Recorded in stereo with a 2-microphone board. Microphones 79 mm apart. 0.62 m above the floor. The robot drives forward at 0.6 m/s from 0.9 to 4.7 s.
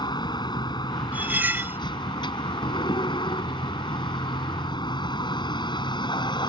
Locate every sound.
0.0 s a vehicle: 70° left (ahead or behind); by 6.5 s 80° left
1.1 s cutlery clinking: 20° right (ahead or behind); by 1.8 s 30° right (ahead or behind)